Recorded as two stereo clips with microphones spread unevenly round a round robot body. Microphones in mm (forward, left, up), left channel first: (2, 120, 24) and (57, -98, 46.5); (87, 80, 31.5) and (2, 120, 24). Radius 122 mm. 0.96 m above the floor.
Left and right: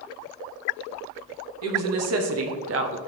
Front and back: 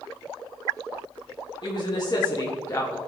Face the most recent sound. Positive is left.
turn(degrees=-100)